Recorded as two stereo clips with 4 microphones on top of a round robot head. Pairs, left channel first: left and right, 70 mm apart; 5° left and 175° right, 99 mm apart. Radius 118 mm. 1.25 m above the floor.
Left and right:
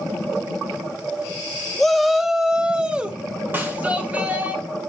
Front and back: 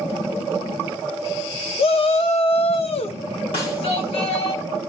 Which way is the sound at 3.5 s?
30° right.